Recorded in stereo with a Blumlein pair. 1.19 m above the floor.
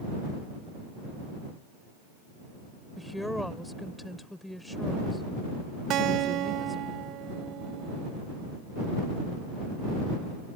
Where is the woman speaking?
5° left.